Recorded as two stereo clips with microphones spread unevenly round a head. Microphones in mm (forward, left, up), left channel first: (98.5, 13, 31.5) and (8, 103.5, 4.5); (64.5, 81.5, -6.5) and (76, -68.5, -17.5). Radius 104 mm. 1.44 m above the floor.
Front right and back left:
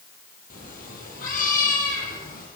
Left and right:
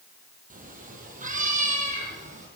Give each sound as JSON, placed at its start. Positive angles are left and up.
{"t": 0.5, "sound": "a cat meowing", "azimuth_deg": -55, "distance_m": 5.5}